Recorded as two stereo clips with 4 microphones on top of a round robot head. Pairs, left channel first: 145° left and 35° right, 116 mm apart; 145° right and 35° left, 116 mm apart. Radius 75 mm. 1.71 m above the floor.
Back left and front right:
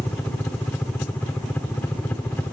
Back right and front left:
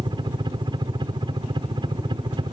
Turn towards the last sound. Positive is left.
turn(degrees=70)